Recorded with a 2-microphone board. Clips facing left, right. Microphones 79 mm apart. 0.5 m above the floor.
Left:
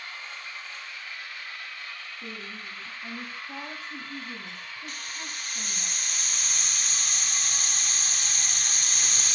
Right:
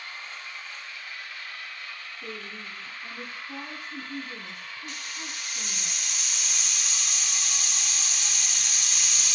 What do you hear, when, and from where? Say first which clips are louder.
2.2 s a woman speaking: right 2 dB; 30° left (ahead or behind), 4 m
4.9 s a hiss: even; 45° left (ahead or behind), 0.9 m